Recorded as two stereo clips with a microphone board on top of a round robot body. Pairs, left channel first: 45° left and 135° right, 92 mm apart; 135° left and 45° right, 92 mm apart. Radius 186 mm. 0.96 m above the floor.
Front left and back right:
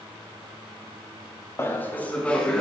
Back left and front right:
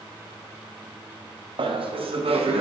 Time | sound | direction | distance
1.6 | laughter | 20° right | 0.9 m